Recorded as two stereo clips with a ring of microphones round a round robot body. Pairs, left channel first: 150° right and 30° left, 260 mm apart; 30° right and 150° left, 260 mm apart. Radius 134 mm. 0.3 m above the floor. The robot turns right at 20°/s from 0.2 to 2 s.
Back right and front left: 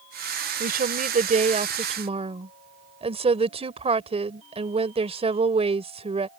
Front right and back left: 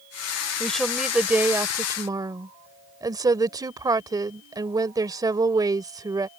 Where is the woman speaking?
55° left; by 6.3 s 80° left.